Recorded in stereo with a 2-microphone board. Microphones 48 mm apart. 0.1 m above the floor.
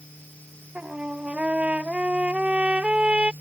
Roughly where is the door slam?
No door slam in this recording.